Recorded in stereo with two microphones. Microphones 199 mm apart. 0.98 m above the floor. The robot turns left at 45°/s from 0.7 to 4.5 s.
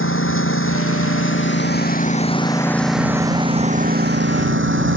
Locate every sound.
0.0 s a lawn mower: 100° left; by 5.0 s 70° right